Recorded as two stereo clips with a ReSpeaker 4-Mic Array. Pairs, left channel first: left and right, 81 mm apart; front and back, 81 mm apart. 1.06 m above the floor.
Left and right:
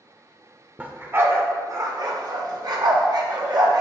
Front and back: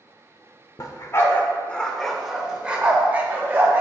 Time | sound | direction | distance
0.8 | a dog barking | 25° right | 0.9 m